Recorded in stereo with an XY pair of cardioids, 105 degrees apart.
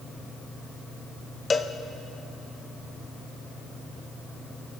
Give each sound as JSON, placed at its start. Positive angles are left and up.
{"t": 1.5, "sound": "a cowbell", "azimuth_deg": 30, "distance_m": 0.7}